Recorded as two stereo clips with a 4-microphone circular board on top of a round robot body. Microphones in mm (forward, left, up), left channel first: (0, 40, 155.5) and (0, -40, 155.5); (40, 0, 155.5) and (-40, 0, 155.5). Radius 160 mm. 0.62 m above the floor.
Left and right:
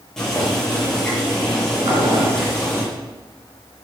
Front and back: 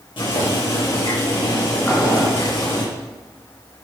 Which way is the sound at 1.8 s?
65° right.